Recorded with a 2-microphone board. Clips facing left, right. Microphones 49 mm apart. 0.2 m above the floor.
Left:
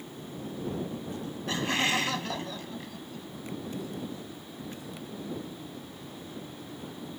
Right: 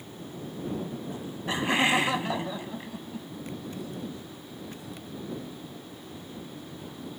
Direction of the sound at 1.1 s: 20° right (ahead or behind).